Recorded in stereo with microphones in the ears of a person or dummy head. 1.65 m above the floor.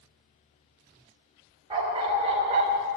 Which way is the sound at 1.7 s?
25° right (ahead or behind).